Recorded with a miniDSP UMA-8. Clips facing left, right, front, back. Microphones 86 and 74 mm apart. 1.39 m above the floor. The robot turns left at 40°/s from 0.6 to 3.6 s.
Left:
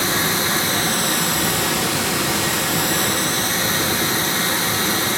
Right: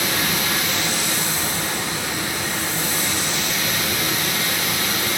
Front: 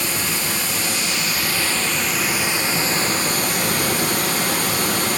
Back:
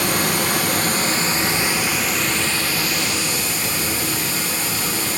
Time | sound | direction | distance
0.0 | running water | 150° left | 1.1 m